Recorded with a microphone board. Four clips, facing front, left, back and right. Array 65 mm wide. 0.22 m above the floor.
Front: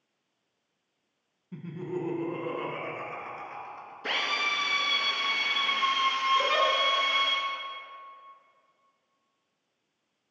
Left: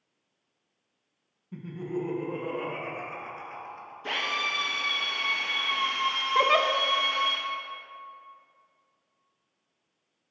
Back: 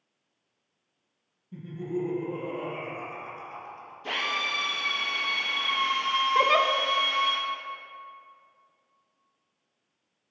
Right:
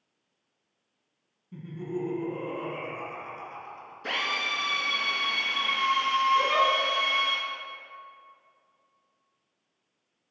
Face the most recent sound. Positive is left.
turn(degrees=130)